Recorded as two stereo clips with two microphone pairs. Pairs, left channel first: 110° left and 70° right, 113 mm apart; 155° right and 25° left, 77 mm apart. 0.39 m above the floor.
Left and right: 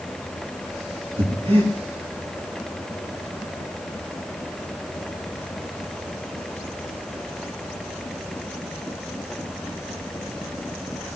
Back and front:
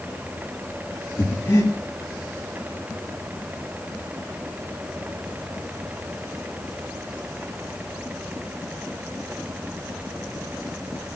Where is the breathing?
95° right, 5 m.